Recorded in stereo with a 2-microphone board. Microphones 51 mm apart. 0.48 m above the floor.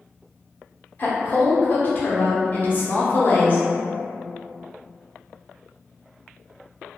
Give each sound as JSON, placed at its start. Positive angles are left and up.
{"t": 1.0, "sound": "a woman speaking", "side_deg": 40, "distance_m": 1.0}